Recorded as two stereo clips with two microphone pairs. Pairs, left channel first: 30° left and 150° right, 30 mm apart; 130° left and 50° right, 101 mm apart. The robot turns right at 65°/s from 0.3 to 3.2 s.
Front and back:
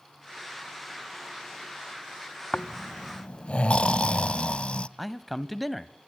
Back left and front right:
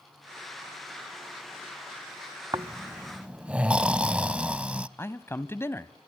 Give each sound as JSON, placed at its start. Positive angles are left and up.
{"t": 2.5, "sound": "snoring", "azimuth_deg": -20, "distance_m": 0.5}
{"t": 5.0, "sound": "a man speaking", "azimuth_deg": 120, "distance_m": 1.1}